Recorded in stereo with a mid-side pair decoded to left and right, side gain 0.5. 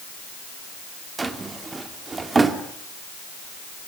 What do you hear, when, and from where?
1.2 s a drawer: 25° right, 2.5 m